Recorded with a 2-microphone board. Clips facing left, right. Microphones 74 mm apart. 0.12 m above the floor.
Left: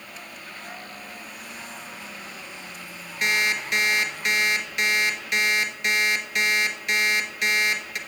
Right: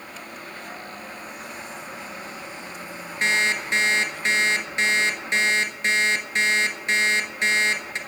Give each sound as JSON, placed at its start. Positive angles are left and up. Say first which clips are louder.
{"t": 3.2, "sound": "an alarm clock", "louder": "right 2 dB", "side_deg": -30, "distance_m": 1.2}